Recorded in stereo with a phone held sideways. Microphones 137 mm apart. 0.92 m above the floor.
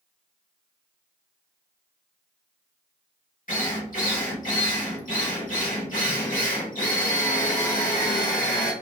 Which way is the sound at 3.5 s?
75° left (ahead or behind).